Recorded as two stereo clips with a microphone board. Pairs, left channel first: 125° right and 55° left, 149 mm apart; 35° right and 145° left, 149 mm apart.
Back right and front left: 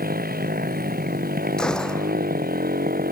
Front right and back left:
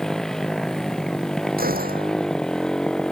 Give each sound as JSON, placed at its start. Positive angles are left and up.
{"t": 0.0, "sound": "a motorcycle", "azimuth_deg": 50}
{"t": 1.6, "sound": "a gunshot", "azimuth_deg": 150}